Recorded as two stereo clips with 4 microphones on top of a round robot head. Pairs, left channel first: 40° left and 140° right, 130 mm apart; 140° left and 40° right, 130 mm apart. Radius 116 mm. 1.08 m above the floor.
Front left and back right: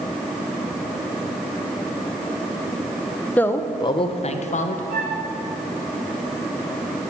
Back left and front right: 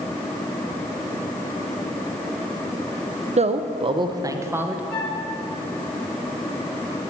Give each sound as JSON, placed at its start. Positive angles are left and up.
{"t": 3.4, "sound": "a man speaking", "azimuth_deg": -35, "distance_m": 1.0}
{"t": 4.9, "sound": "a flute", "azimuth_deg": -145, "distance_m": 5.5}